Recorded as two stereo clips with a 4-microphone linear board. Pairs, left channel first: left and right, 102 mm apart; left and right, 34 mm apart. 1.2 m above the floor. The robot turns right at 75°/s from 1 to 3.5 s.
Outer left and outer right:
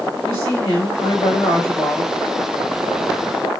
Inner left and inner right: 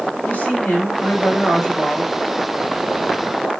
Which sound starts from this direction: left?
A woman speaking, at 0.2 s.